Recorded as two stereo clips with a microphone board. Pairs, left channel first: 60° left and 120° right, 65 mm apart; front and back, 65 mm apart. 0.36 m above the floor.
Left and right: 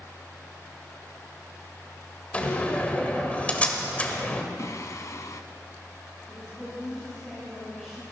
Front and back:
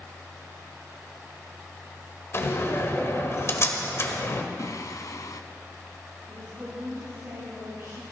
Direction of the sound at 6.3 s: 150° left.